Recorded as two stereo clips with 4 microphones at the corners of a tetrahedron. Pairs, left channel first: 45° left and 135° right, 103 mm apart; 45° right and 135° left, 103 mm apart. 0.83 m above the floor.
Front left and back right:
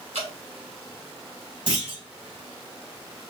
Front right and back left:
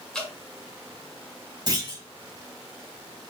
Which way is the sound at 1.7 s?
175° right.